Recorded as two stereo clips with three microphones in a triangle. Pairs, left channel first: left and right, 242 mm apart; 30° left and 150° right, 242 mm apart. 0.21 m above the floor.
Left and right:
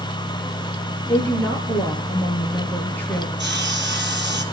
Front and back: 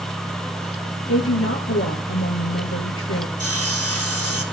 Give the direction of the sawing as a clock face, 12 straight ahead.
4 o'clock.